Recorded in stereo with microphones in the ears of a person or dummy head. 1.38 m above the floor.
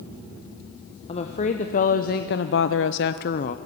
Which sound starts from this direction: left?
A woman speaking, at 1.1 s.